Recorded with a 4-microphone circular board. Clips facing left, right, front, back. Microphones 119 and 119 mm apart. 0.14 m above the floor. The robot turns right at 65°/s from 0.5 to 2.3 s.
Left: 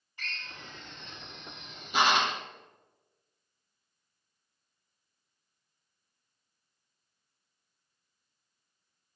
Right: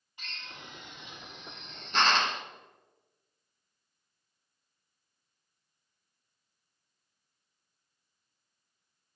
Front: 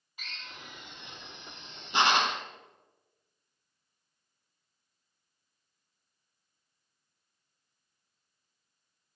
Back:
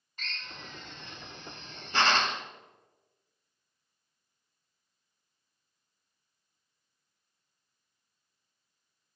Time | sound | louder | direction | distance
0.2 | a drill | left 2 dB, back 3 dB | 65° right | 0.9 m